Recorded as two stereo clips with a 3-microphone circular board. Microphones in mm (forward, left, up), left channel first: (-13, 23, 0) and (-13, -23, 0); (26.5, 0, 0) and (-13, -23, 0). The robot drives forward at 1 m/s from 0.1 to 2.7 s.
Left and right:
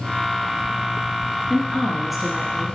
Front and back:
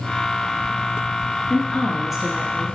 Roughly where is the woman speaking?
Ahead.